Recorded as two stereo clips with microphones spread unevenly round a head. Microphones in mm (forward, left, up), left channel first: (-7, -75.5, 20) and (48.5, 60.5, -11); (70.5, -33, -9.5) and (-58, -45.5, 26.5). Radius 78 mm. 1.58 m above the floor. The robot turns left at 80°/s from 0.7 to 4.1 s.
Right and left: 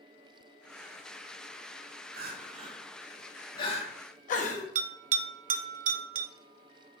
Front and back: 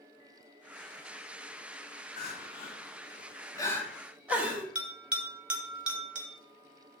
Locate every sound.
2.2 s crying: 50° left, 1.4 m; by 4.7 s 105° right, 1.4 m
4.8 s a bell: 110° left, 0.8 m